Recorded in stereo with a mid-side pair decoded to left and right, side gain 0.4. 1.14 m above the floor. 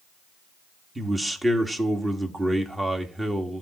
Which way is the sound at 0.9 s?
20° right.